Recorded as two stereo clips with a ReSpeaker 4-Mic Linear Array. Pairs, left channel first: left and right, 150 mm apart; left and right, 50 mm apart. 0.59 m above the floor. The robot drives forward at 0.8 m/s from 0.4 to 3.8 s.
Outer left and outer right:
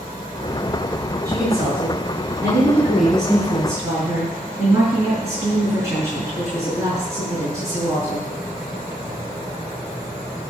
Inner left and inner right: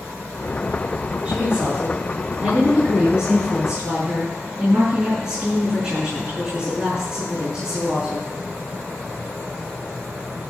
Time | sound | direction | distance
1.2 | a woman speaking | 25° right (ahead or behind) | 7 m